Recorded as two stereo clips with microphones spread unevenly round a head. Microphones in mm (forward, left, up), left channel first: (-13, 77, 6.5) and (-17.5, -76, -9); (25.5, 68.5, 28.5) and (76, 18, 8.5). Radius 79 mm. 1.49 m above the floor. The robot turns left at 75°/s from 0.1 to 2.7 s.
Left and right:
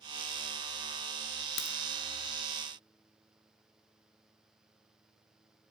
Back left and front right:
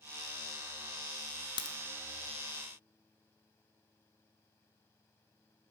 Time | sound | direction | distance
1.6 | a crack | 110° left | 0.7 m